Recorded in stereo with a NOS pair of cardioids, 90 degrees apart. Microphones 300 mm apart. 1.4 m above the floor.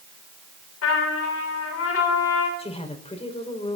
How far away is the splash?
I don't hear a splash.